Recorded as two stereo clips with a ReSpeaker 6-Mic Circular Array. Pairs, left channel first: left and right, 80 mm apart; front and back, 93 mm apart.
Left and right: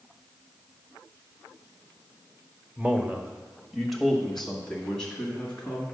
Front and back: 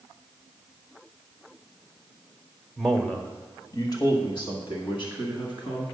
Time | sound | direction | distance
2.8 | a man speaking | 100° right | 1.0 m